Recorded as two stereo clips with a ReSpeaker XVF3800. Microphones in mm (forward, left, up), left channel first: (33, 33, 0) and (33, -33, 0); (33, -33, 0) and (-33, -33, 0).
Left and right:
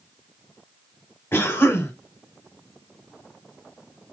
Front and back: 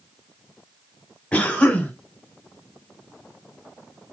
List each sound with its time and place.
1.3 s a cough: 60° left, 1.4 m